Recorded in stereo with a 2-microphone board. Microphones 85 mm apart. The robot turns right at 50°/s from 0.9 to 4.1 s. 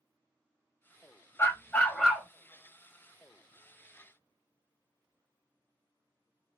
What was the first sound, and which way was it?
A dog barking, 140° left.